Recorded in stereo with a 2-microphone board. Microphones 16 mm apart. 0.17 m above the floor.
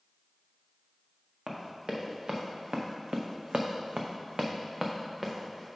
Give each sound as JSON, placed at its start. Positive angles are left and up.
{"t": 1.5, "sound": "running footsteps", "side_deg": -40, "distance_m": 1.6}